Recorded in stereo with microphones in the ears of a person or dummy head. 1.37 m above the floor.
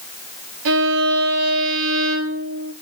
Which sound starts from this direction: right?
A violin, at 0.7 s.